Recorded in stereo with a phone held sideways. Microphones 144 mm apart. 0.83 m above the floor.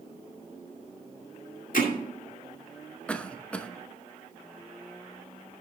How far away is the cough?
About 0.8 m.